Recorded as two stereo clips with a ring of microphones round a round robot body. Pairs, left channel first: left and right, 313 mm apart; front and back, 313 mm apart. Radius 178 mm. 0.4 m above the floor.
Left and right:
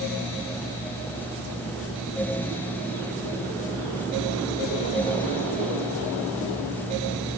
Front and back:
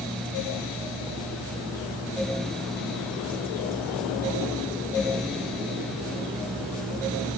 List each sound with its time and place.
Only background noise.